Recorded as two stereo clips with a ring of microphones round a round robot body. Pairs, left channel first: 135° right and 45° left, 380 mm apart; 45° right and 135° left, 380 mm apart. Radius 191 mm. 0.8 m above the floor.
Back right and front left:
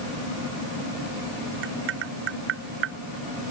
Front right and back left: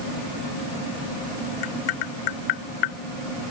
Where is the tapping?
15° right.